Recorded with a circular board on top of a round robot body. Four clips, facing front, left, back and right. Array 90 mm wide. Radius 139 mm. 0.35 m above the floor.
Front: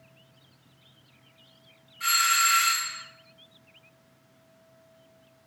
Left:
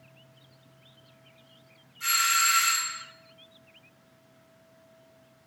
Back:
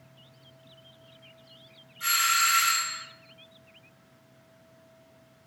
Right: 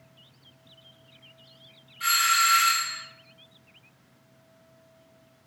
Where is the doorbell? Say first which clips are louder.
Right 3 dB, front 1 dB; 50° right, 2.5 m.